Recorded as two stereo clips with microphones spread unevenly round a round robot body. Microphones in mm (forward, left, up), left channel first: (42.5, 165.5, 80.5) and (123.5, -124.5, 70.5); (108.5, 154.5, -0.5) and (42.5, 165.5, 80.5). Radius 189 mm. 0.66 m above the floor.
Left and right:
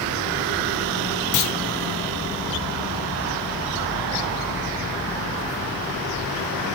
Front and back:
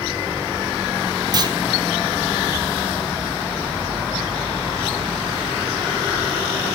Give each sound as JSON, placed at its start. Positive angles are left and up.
{"t": 1.3, "sound": "a clunk", "azimuth_deg": 140, "distance_m": 1.4}